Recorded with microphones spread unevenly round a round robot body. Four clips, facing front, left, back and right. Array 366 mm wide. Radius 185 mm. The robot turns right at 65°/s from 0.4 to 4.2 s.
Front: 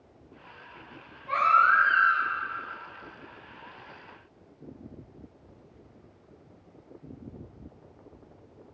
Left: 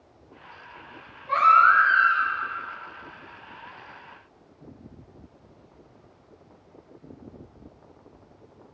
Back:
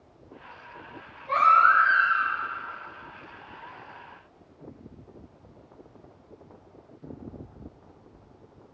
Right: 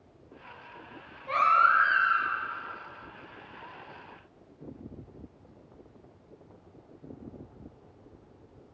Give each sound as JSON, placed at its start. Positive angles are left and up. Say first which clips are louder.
{"t": 1.3, "sound": "a baby crying", "louder": "left 6 dB, back 3 dB", "azimuth_deg": -85, "distance_m": 9.0}